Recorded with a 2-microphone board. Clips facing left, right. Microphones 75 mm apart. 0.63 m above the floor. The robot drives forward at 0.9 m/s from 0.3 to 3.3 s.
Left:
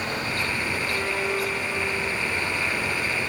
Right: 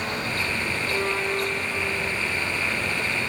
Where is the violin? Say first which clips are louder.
Right 3 dB; centre (ahead or behind), 4.5 m.